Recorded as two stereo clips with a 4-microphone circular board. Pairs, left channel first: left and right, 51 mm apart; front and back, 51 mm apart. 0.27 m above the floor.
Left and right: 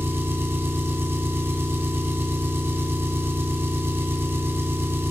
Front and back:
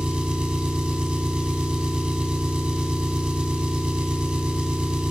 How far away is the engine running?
About 0.8 m.